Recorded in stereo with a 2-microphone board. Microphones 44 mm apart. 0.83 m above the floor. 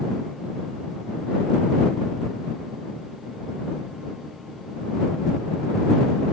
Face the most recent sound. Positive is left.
No sound to turn to.